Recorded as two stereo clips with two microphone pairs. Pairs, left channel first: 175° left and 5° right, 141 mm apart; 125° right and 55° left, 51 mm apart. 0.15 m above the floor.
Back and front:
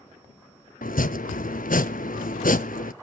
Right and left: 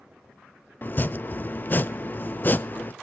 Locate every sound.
0.8 s chopping: 175° right, 0.5 m